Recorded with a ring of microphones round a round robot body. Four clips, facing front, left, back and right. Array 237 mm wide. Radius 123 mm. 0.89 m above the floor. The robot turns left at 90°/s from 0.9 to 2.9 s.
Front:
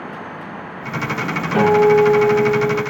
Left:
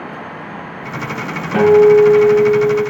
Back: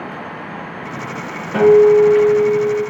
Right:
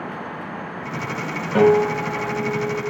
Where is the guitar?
105° left, 1.4 m; by 2.8 s 10° right, 1.4 m.